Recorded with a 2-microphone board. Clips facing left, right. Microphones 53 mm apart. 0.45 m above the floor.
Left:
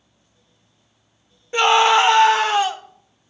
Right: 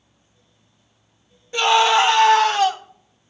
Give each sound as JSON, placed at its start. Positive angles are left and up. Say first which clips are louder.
{"t": 1.5, "sound": "a scream", "louder": "left 1 dB", "side_deg": 30, "distance_m": 1.0}